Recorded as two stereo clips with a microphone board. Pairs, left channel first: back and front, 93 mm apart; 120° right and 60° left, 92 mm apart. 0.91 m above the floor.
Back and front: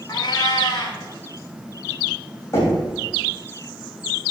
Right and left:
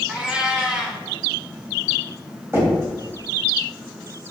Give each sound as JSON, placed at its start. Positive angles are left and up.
{"t": 0.1, "sound": "a cat meowing", "azimuth_deg": 140, "distance_m": 1.4}
{"t": 2.5, "sound": "knocking", "azimuth_deg": 120, "distance_m": 3.0}